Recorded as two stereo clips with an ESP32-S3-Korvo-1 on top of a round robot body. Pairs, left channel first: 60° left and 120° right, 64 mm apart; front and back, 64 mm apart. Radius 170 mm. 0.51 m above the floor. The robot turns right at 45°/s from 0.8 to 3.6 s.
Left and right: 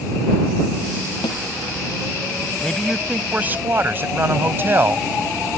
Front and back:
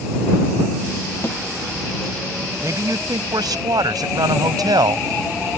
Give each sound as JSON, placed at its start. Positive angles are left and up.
{"t": 1.2, "sound": "a snare drum", "azimuth_deg": 55}
{"t": 2.6, "sound": "a man speaking", "azimuth_deg": 140}